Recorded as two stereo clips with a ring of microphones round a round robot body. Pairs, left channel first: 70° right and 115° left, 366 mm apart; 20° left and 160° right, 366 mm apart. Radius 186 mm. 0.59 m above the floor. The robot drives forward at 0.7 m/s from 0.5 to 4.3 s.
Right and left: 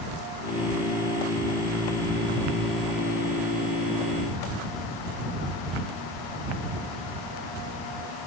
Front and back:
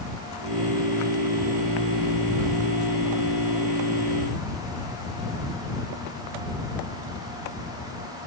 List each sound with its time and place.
Only background noise.